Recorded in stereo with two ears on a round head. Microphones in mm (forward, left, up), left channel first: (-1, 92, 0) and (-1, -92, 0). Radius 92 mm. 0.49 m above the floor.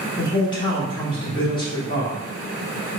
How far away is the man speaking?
About 1.2 m.